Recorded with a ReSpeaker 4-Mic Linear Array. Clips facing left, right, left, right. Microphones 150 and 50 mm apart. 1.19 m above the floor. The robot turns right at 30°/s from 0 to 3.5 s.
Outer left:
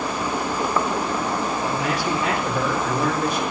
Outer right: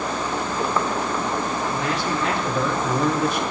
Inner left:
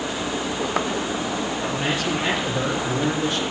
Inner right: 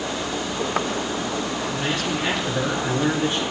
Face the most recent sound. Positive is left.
turn(degrees=-150)